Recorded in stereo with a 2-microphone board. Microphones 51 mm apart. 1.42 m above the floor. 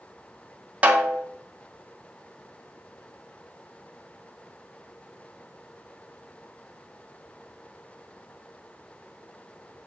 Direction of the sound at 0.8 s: 30° right (ahead or behind).